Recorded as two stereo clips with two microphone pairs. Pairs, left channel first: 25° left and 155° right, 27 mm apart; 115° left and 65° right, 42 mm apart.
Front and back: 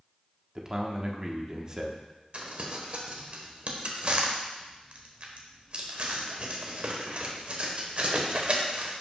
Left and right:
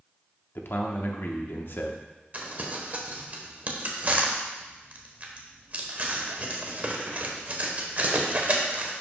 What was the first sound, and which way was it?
A man speaking, 140° left.